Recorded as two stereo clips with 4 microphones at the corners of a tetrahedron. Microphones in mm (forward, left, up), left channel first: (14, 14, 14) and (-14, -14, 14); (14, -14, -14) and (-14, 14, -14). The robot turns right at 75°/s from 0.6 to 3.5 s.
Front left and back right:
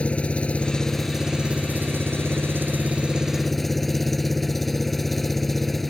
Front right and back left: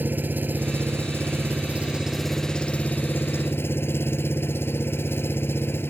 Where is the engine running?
100° left; by 5.9 s 40° right.